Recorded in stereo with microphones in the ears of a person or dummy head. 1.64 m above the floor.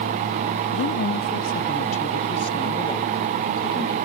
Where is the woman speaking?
65° left (ahead or behind); by 4.0 s 15° left (ahead or behind).